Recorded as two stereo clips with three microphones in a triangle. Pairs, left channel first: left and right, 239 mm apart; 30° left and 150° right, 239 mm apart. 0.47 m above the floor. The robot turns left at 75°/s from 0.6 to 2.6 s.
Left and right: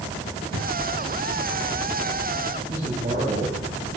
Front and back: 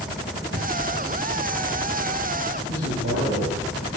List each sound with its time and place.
0.5 s a thud: 115° right, 6 m; by 0.7 s 120° right, 6 m
2.7 s a man speaking: 150° right, 6.5 m